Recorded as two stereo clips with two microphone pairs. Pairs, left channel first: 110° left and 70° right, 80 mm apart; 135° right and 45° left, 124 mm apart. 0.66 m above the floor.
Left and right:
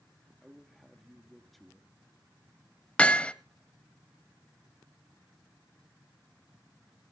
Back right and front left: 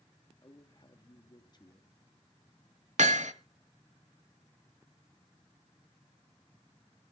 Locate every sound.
0.4 s a man speaking: 160° right, 1.3 m
3.0 s hammering: 35° left, 0.9 m